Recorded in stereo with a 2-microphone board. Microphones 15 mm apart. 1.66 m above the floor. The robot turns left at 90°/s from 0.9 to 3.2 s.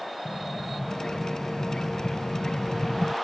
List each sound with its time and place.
0.2 s an explosion: 100° right; by 3.1 s 55° left